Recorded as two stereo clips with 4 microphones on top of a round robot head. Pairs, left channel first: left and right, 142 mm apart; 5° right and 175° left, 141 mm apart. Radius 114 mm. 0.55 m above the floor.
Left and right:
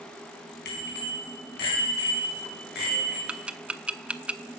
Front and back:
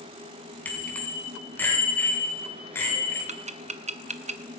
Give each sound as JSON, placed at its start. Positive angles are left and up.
{"t": 0.7, "sound": "a bicycle bell", "azimuth_deg": 75, "distance_m": 4.0}
{"t": 3.3, "sound": "ticking", "azimuth_deg": -170, "distance_m": 0.8}